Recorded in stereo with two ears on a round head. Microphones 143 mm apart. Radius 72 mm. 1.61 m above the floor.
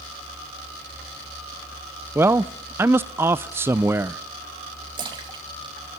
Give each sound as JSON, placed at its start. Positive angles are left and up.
{"t": 2.1, "sound": "a man speaking", "side_deg": -15, "distance_m": 0.5}
{"t": 5.0, "sound": "a splash", "side_deg": -30, "distance_m": 2.5}